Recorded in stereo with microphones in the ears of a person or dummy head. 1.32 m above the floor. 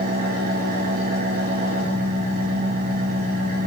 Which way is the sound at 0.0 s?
50° right (ahead or behind).